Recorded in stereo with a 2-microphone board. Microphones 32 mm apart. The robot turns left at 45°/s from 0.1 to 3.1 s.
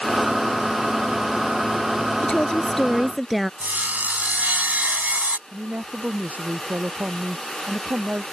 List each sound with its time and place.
2.2 s a woman speaking: 35° left; by 3.5 s straight ahead
3.6 s sawing: 65° right (ahead or behind)
5.5 s a woman speaking: 55° right (ahead or behind)